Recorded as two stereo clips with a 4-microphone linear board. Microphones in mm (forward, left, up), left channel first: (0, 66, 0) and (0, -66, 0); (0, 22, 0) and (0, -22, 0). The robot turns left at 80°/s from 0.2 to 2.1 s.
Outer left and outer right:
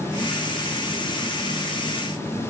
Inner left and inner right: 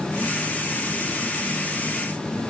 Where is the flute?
No flute in this recording.